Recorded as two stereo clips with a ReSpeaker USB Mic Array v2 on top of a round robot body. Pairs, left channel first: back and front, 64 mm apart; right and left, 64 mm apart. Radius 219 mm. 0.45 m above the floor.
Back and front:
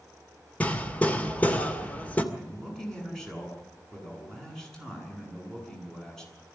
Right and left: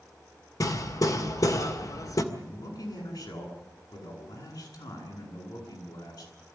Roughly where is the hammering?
Behind right.